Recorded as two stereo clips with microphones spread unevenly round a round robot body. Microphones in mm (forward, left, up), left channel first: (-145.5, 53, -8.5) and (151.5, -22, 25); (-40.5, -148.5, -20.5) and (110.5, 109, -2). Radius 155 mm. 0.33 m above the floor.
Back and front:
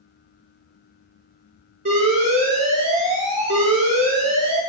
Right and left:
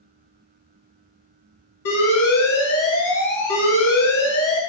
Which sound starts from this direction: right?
An alarm, at 1.9 s.